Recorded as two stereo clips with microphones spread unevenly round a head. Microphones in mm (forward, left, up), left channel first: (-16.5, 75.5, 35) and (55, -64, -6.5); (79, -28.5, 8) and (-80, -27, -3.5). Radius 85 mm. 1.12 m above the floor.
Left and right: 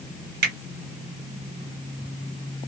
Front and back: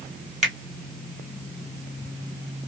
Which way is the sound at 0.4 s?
90° right.